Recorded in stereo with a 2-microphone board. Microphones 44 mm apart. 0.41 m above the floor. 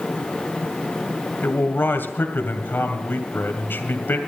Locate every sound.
1.4 s a man speaking: 60° left (ahead or behind), 2 m